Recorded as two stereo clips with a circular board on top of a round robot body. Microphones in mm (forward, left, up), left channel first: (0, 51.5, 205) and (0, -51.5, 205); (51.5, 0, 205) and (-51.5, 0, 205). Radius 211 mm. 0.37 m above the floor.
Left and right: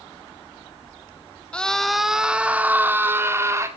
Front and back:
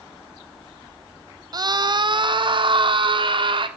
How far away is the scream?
About 1.7 m.